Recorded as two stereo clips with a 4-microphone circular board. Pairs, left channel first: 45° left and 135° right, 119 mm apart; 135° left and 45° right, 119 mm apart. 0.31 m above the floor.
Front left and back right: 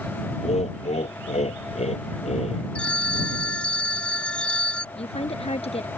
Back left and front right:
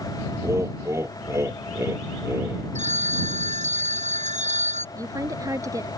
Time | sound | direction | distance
0.4 | laughter | 20° left | ?
2.8 | a phone ringing | 35° right | ?
5.0 | a woman speaking | 15° left | ?